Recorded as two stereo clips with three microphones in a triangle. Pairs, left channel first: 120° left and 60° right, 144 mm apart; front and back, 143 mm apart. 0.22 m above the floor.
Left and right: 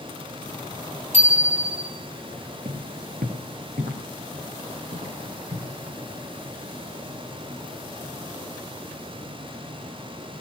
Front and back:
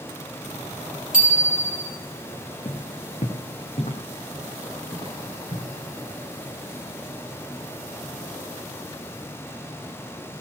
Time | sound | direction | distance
1.1 | a bicycle bell | 25° right | 4.5 m
2.6 | footsteps | 45° right | 1.6 m